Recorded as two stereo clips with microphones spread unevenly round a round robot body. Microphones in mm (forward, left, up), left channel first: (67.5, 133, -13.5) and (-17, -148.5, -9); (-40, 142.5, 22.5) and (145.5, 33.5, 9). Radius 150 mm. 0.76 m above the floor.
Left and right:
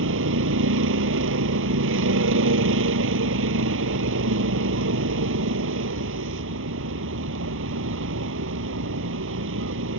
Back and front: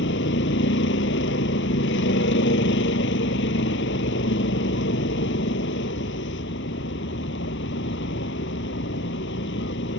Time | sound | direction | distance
0.0 | a vehicle | 155° right | ?